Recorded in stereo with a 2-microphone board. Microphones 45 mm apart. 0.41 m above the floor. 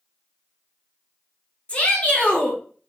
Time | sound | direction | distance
1.7 | a shout | 25° left (ahead or behind) | 1.0 m